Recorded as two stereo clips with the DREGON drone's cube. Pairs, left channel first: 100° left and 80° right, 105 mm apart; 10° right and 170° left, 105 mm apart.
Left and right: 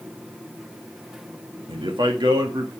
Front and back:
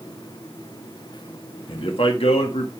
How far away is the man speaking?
About 1.5 m.